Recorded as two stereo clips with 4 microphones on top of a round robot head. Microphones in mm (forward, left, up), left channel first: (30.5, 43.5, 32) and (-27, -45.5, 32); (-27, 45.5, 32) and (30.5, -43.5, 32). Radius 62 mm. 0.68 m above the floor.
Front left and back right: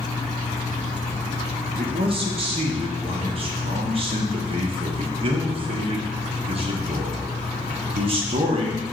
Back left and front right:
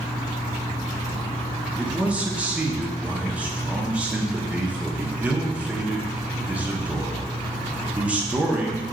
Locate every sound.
1.8 s a man speaking: 130° right, 0.9 m